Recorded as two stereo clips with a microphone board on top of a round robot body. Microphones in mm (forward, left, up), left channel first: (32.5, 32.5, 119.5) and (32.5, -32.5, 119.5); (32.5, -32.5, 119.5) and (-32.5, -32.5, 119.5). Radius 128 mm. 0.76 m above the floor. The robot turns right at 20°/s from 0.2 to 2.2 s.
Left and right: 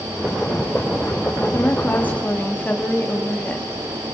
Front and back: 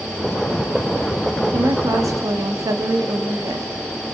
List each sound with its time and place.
1.5 s a woman speaking: 140° left, 2.0 m; by 3.7 s 155° left, 2.0 m